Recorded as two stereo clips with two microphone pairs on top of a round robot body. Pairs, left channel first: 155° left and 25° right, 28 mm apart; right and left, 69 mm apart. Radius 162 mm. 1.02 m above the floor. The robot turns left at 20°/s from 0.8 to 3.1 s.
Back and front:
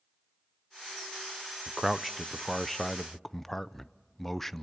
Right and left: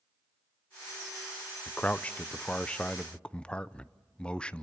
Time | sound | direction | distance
1.7 | a man speaking | 90° right | 0.8 m